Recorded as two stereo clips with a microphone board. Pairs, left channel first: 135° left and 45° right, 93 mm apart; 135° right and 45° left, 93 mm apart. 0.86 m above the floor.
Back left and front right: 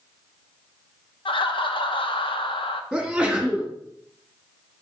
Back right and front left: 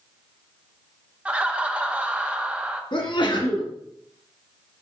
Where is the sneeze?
125° right, 1.9 m.